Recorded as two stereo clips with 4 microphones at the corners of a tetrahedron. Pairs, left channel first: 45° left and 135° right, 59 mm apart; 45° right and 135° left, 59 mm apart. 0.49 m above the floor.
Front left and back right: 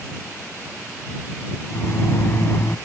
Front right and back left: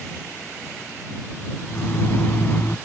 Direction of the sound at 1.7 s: 5° left.